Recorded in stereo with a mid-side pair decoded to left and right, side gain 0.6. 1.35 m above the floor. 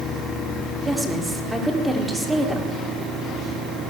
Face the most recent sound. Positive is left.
turn(degrees=-10)